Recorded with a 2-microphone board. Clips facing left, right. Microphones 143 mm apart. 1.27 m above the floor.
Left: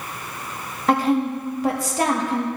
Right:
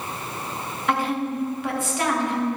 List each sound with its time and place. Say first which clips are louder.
0.9 s a woman speaking: left 5 dB; 35° left (ahead or behind), 1.7 m